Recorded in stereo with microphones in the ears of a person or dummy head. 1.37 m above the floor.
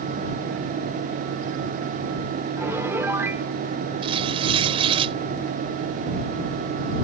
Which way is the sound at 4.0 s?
30° right (ahead or behind).